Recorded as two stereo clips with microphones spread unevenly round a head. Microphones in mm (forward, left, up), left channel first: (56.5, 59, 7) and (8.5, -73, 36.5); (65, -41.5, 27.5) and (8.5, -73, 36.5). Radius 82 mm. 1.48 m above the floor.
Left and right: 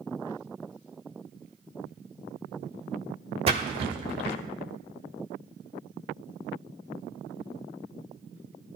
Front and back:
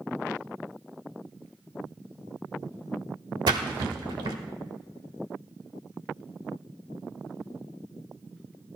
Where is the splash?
165° right, 1.2 m.